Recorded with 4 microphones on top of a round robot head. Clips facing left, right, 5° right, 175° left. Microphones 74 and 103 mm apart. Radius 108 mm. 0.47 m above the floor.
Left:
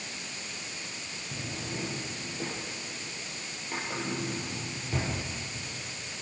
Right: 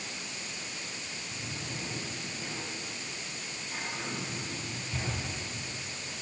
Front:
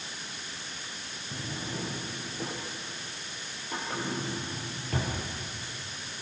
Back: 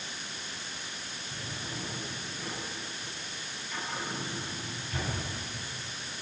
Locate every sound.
1.3 s a drawer: 40° left, 7 m